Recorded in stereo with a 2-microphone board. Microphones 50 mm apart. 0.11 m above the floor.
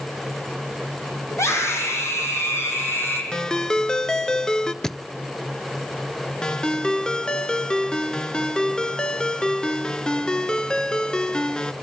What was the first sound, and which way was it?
A scream, 65° left (ahead or behind).